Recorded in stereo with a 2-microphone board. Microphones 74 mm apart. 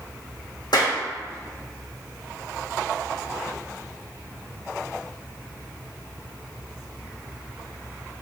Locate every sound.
0.7 s a clap: 75° left (ahead or behind), 3.5 m